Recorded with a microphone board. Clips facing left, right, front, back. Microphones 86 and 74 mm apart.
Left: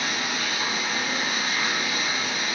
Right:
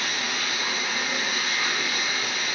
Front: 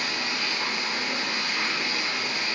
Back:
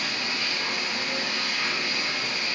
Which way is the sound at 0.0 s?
40° left.